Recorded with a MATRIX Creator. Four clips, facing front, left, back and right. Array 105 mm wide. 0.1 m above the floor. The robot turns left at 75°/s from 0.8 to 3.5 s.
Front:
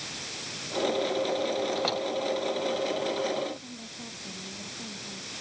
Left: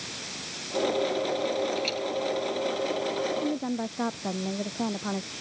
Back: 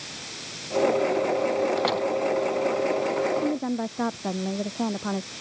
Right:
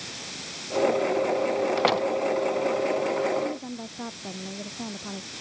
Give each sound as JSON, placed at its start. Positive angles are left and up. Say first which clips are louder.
{"t": 1.8, "sound": "a door slam", "louder": "right 7 dB, back 5 dB", "azimuth_deg": -95}
{"t": 3.4, "sound": "a woman speaking", "louder": "left 3 dB, back 10 dB", "azimuth_deg": 160}